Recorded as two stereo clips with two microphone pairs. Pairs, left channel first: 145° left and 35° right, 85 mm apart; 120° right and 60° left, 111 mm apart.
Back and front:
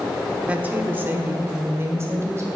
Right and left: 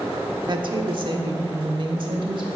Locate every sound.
0.5 s a woman speaking: 35° left, 1.0 m; by 2.5 s 20° left, 2 m